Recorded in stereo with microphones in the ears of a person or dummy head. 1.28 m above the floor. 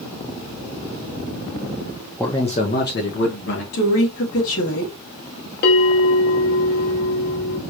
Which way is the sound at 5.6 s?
50° left (ahead or behind).